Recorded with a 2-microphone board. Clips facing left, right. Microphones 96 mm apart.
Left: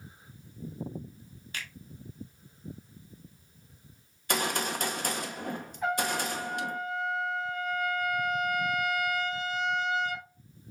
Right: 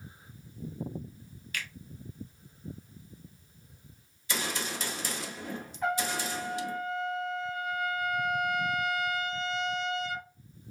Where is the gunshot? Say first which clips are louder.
Left 5 dB; 55° left (ahead or behind), 0.8 m.